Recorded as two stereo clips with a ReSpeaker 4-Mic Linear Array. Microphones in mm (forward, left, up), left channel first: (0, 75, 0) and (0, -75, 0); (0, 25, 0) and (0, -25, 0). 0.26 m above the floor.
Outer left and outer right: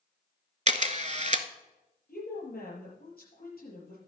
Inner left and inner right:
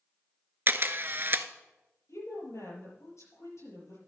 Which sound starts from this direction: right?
A camera shutter, at 0.7 s.